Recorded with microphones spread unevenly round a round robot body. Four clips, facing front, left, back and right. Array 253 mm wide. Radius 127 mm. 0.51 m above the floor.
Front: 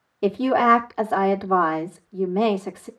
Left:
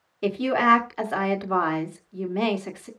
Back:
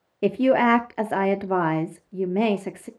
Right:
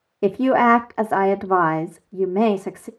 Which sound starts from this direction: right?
A woman speaking, at 0.2 s.